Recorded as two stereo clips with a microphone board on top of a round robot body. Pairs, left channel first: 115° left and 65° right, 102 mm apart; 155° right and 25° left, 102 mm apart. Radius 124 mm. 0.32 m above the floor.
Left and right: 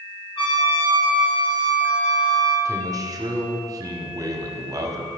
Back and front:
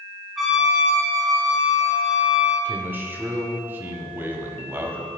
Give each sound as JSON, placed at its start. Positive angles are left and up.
{"t": 0.4, "sound": "a trumpet", "azimuth_deg": 110, "distance_m": 1.7}
{"t": 2.6, "sound": "a man speaking", "azimuth_deg": -35, "distance_m": 1.1}